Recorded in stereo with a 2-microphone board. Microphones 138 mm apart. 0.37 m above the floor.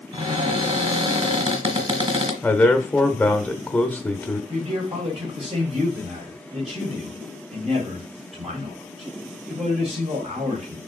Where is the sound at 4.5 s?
50° right (ahead or behind), 2 m.